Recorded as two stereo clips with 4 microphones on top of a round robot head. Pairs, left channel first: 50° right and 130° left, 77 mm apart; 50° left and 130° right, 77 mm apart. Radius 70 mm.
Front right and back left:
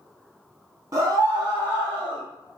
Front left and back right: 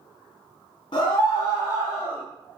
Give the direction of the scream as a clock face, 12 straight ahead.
9 o'clock.